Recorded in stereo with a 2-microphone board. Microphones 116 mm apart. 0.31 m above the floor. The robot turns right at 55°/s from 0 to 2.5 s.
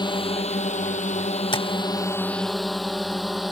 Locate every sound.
0.0 s a drone: 35° left (ahead or behind); by 3.5 s centre (ahead or behind)
1.5 s tapping: 40° left (ahead or behind); by 1.7 s 50° left (ahead or behind)